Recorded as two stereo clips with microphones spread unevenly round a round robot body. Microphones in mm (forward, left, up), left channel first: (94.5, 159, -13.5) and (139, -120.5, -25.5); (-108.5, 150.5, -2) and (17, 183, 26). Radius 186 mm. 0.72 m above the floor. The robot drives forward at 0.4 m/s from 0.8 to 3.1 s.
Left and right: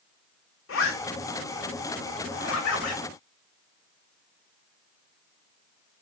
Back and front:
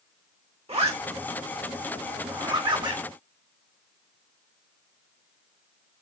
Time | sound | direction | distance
0.7 | a zipper | 60° left | 3 m